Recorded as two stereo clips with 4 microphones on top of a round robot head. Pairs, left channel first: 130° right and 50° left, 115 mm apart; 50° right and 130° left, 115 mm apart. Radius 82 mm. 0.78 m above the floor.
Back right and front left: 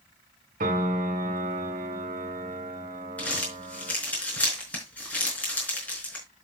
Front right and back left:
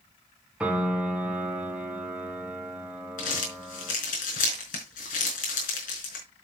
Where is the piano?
50° left, 2 m.